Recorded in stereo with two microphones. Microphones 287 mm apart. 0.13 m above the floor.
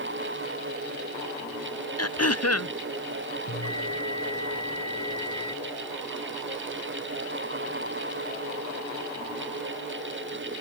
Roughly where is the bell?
Left.